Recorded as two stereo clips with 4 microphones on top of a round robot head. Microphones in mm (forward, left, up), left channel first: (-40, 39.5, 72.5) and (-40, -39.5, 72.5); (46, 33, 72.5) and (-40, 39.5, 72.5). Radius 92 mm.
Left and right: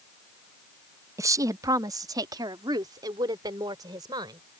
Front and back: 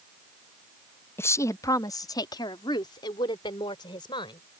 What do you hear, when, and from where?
1.2 s a woman speaking: 60° right; by 4.4 s 45° right